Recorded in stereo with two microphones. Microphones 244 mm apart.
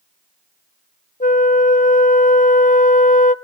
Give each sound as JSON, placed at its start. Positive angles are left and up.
{"t": 1.2, "sound": "a flute", "side_deg": 30, "distance_m": 0.5}